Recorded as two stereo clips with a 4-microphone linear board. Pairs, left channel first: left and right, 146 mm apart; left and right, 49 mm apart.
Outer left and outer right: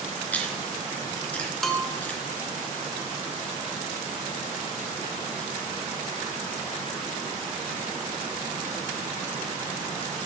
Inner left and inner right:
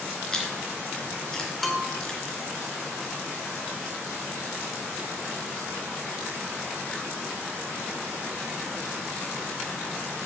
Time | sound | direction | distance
0.3 | chewing | 10° left (ahead or behind) | 3 m
1.6 | a bell | centre (ahead or behind) | 1.5 m